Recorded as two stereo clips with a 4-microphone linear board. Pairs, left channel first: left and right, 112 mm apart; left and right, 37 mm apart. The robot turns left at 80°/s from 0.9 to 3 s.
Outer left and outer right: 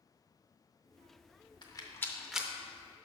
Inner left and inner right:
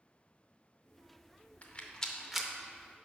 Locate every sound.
1.6 s a rattle: 40° left (ahead or behind), 0.7 m; by 2.5 s 15° right (ahead or behind), 0.7 m